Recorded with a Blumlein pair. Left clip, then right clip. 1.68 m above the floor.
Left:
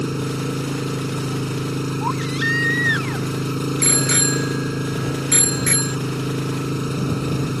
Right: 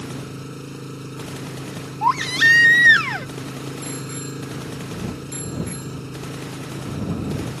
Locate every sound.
0.0 s an engine running: 25° left
2.0 s a baby crying: 25° right
3.8 s a bicycle bell: 50° left